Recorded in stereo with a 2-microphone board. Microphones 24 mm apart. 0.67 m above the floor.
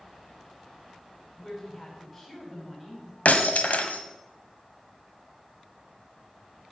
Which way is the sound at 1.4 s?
10° left (ahead or behind).